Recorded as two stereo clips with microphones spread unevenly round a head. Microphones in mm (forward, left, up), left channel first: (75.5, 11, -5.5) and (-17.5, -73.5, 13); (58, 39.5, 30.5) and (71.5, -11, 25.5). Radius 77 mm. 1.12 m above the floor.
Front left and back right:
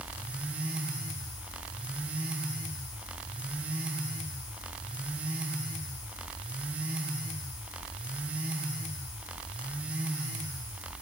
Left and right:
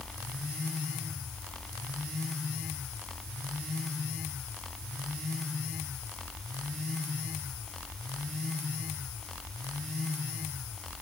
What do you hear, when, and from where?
Only background noise.